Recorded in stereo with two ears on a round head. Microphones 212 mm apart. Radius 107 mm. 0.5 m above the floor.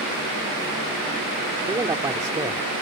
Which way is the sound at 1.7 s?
15° right (ahead or behind).